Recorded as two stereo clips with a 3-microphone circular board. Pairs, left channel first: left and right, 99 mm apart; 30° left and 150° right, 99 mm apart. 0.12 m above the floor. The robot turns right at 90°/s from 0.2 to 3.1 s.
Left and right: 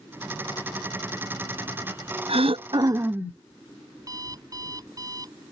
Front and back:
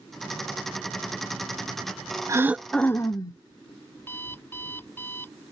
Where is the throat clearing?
95° right; by 3.4 s 20° right.